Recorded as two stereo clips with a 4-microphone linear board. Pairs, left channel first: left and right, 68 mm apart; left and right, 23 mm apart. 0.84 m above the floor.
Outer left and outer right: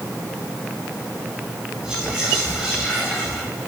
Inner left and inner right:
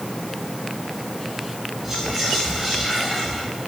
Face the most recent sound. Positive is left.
turn(degrees=-10)  # may be behind; listen again after turning